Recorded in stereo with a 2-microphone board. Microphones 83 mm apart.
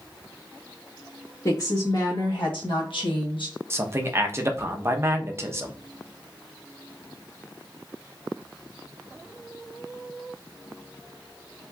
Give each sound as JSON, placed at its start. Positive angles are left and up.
{"t": 1.4, "sound": "a woman speaking", "side_deg": 45, "distance_m": 1.1}
{"t": 3.7, "sound": "a man speaking", "side_deg": -30, "distance_m": 0.6}